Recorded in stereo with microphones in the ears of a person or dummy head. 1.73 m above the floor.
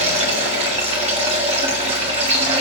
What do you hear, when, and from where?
0.0 s running water: 40° right (ahead or behind), 2.5 m